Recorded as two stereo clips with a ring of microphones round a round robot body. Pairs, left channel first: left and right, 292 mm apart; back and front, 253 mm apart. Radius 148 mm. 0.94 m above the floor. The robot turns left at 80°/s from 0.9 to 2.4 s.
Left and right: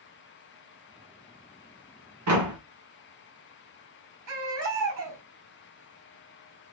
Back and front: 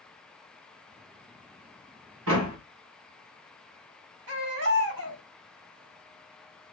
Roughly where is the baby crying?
Ahead right.